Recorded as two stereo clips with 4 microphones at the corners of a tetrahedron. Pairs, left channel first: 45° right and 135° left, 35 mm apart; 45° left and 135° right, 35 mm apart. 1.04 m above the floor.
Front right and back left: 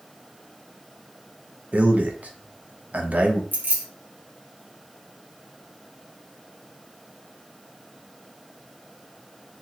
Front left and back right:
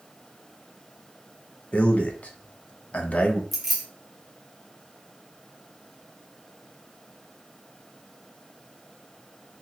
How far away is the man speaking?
About 0.7 m.